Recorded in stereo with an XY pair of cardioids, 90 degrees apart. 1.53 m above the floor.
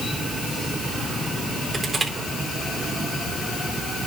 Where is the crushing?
15° right, 4 m.